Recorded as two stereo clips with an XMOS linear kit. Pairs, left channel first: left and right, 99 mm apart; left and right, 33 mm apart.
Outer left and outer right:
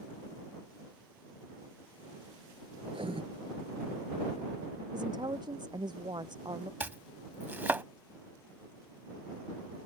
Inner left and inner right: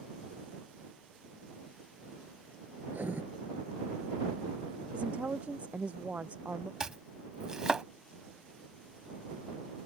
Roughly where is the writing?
Right.